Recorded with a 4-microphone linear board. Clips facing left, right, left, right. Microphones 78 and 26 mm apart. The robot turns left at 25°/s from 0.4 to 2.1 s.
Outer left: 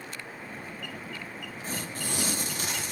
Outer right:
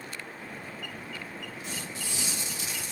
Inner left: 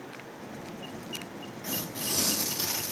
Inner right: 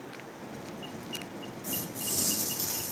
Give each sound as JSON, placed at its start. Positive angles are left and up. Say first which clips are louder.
{"t": 1.6, "sound": "tearing paper", "louder": "outer left 6 dB, inner left 3 dB", "side_deg": 40, "distance_m": 0.6}